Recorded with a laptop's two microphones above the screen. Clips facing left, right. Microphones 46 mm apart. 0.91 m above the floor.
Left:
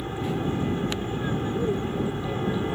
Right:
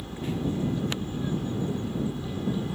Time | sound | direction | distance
0.0 | an aircraft | 40° left (ahead or behind) | ?